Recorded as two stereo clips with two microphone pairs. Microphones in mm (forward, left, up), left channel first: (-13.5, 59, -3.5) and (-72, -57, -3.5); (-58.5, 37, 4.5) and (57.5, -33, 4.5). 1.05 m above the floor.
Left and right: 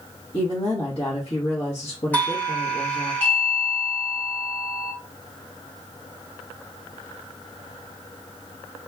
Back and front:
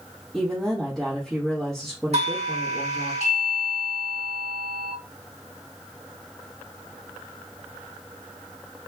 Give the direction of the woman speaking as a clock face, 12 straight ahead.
10 o'clock.